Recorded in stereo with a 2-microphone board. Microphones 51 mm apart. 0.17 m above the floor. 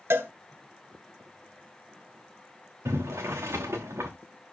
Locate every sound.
0.1 s a cowbell: 55° right (ahead or behind), 1.8 m
2.9 s boiling: 70° right (ahead or behind), 2.5 m